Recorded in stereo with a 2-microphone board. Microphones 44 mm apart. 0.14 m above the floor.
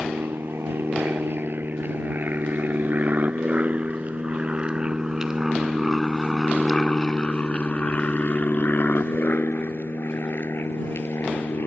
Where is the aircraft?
55° right (ahead or behind); by 11.7 s 60° left (ahead or behind).